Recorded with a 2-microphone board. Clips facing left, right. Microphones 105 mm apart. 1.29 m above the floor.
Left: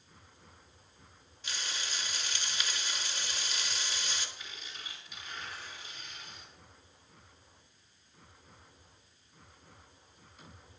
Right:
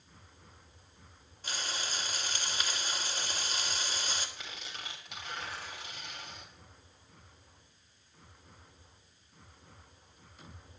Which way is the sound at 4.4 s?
85° right.